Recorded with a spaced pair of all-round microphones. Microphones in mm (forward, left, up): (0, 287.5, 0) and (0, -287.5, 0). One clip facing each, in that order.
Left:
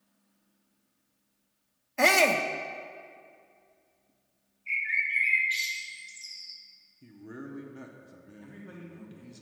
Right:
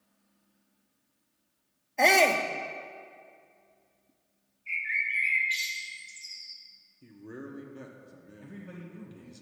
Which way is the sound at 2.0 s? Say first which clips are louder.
Even; 35° left (ahead or behind).